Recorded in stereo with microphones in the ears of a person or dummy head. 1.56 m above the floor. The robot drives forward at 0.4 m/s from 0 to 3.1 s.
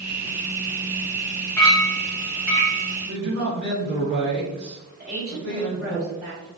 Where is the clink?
5° left (ahead or behind), 1.2 m.